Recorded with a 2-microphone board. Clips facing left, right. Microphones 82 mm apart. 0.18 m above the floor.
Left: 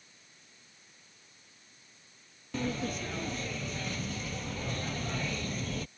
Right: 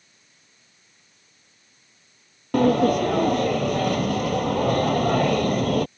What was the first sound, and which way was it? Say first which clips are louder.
A sliding door: right 17 dB; 65° right (ahead or behind).